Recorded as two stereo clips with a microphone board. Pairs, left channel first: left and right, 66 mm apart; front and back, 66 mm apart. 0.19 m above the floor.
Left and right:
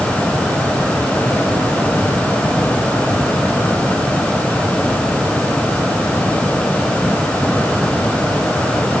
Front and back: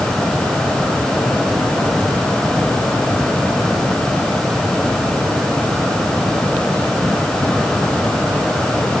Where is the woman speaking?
I don't hear a woman speaking.